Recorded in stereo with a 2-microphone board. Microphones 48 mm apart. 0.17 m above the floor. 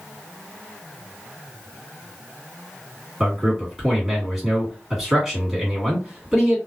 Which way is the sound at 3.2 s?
5° right (ahead or behind).